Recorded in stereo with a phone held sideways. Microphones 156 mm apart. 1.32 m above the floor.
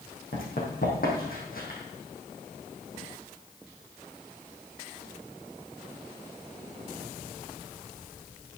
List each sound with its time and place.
0.3 s running footsteps: 65° left (ahead or behind), 4 m